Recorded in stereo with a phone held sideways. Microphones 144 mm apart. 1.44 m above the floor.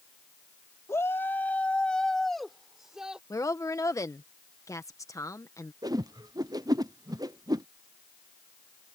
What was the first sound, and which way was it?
A shout, 20° left (ahead or behind).